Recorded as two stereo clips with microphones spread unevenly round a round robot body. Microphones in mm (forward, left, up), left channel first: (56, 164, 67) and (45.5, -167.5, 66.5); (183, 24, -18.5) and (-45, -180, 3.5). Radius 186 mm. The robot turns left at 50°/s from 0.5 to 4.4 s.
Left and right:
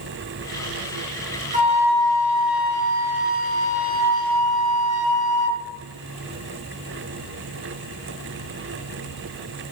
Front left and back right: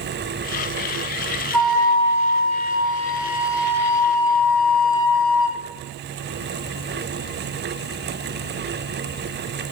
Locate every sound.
1.5 s a flute: 160° right, 6 m; by 5.6 s 55° left, 6 m